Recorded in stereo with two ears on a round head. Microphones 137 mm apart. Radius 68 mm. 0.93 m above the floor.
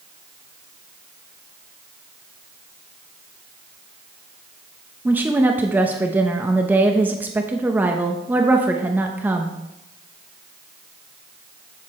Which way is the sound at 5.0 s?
10° right (ahead or behind).